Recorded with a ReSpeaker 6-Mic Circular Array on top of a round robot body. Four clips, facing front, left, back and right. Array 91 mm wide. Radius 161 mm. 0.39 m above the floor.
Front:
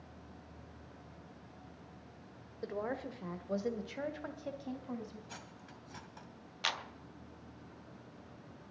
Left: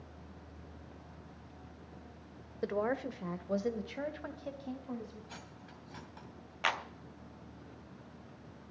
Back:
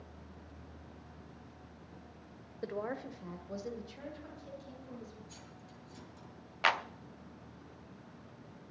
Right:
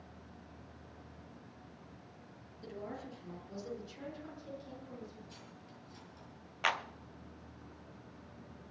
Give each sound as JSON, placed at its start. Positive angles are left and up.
{"t": 2.6, "sound": "a woman speaking", "azimuth_deg": 100, "distance_m": 1.7}
{"t": 5.3, "sound": "cutlery clinking", "azimuth_deg": 45, "distance_m": 2.0}
{"t": 6.6, "sound": "a clap", "azimuth_deg": -175, "distance_m": 1.1}